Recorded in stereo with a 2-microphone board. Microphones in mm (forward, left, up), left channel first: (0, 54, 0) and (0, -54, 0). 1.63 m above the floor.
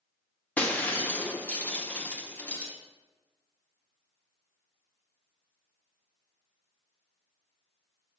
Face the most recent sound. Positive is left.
turn(degrees=15)  # may be behind; listen again after turning